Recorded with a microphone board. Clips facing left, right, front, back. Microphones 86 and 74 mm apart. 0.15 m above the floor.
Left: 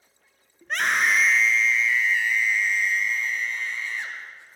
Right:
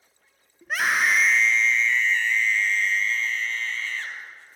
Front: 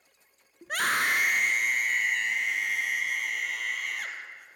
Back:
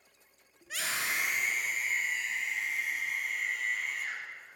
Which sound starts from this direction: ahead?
A scream, at 0.6 s.